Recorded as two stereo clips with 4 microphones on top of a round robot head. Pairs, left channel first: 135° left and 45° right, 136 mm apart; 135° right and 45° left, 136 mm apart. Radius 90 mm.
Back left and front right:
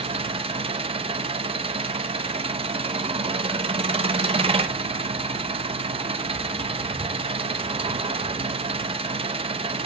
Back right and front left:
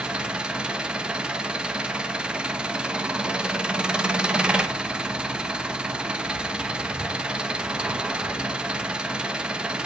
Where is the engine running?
40° right, 0.8 m.